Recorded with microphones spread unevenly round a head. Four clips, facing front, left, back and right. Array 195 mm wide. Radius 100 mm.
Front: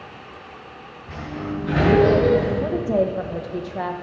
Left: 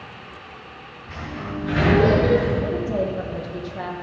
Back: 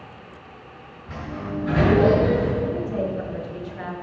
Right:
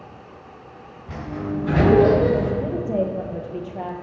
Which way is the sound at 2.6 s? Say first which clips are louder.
Even, front 4 dB; 15° right.